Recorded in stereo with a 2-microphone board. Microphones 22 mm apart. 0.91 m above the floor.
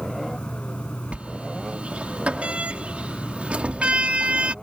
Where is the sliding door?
70° right (ahead or behind).